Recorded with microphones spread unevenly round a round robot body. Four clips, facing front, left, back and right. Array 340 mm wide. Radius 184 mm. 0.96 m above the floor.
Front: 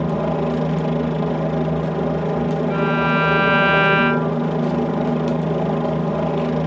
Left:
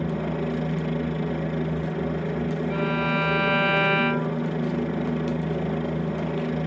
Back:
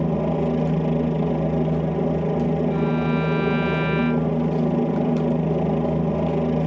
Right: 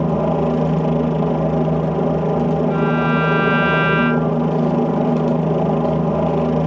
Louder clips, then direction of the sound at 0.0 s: Right 10 dB, front 2 dB; 75° right.